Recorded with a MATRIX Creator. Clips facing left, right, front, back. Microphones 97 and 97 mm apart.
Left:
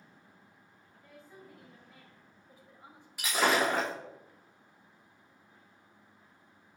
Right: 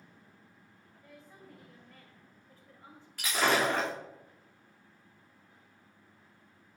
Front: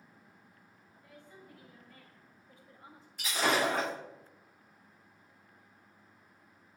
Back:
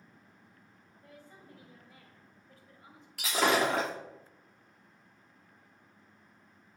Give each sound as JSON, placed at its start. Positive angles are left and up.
{"t": 1.0, "sound": "a woman speaking", "azimuth_deg": 180, "distance_m": 1.8}
{"t": 3.2, "sound": "breaking glass", "azimuth_deg": 170, "distance_m": 3.0}